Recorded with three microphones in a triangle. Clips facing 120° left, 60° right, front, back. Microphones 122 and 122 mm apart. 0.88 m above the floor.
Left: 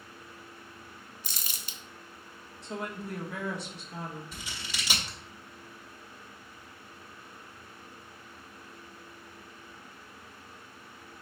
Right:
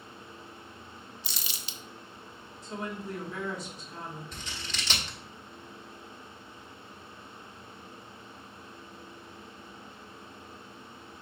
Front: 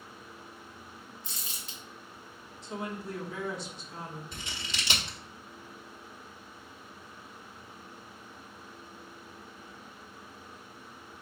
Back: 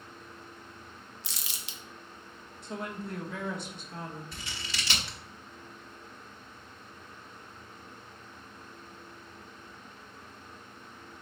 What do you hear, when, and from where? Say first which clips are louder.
1.2 s crumpling: right 2 dB, even; 165° left, 0.5 m
2.6 s a woman speaking: even, front 1 dB; 145° left, 1.2 m
4.3 s scissors: right 1 dB, even; 50° left, 0.9 m